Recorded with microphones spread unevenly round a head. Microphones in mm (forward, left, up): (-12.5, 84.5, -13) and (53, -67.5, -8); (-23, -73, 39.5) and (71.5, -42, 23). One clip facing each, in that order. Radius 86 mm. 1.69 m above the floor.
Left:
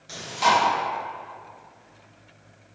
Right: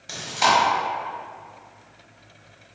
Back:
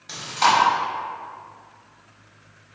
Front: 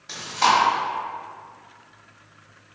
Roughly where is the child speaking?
No child speaking in this recording.